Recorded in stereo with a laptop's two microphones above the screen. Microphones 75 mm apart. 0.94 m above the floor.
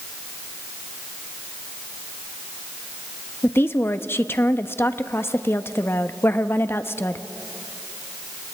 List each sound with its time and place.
3.4 s a woman speaking: 35° left (ahead or behind), 0.9 m